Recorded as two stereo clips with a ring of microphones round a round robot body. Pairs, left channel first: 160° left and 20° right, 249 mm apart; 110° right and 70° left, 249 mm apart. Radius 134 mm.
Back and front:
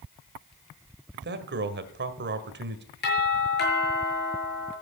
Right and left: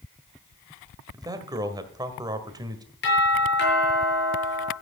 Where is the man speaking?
Straight ahead, 1.6 m.